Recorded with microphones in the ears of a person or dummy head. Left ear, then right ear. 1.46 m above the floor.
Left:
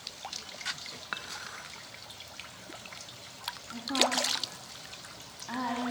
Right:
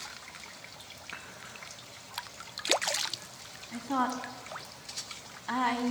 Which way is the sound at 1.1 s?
55° left (ahead or behind).